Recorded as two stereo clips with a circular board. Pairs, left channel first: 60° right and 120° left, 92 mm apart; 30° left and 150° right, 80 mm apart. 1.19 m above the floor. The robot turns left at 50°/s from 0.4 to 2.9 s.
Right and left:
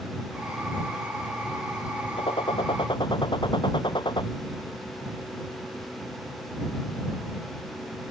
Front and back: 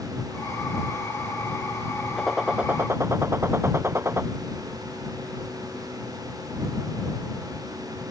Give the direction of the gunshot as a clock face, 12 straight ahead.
2 o'clock.